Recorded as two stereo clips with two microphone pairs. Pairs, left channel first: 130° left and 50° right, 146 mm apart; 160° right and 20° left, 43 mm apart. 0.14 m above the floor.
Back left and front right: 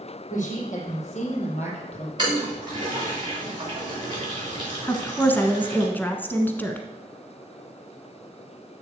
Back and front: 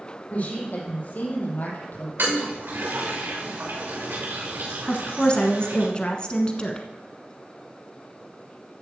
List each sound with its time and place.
0.3 s a woman speaking: 145° left, 4.5 m; by 2.1 s 165° left, 3.5 m
2.2 s a toilet flushing: straight ahead, 4 m
4.9 s a woman speaking: 175° right, 1.1 m